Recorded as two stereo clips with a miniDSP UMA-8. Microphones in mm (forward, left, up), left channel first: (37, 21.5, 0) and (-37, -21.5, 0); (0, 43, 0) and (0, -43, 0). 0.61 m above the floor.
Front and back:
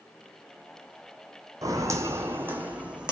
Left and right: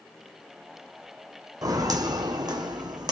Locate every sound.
1.6 s footsteps: 115° right, 1.1 m; by 3.1 s 70° right, 1.3 m